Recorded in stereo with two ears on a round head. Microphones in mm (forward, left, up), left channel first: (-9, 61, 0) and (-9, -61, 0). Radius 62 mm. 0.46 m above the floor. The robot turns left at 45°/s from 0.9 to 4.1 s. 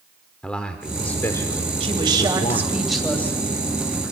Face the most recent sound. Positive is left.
turn(degrees=125)